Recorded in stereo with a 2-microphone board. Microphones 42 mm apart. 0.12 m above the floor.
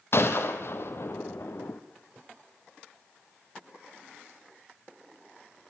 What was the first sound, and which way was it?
A gunshot, 60° left (ahead or behind).